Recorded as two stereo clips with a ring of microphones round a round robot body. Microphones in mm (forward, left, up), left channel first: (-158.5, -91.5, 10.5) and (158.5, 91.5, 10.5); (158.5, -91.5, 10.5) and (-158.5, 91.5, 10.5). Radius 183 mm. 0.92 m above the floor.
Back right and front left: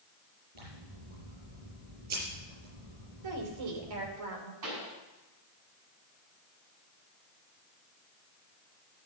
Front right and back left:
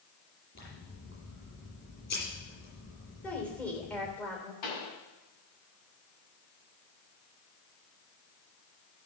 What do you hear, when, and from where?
0.6 s scissors: 35° left, 7 m
3.2 s a woman speaking: 55° left, 3 m
4.6 s a pop: 10° right, 5 m